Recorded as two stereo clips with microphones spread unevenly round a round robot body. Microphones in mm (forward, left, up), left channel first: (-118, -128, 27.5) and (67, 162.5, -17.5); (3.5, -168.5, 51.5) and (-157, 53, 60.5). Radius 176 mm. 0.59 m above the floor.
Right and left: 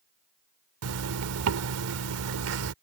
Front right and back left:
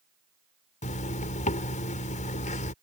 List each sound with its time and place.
0.8 s a zipper: 10° left